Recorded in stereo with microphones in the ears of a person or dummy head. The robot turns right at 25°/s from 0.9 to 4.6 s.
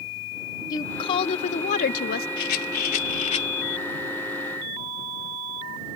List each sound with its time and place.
0.7 s a woman speaking: 20° left; by 2.3 s 55° left
2.4 s a rattle: 60° left (ahead or behind); by 3.5 s 35° left (ahead or behind)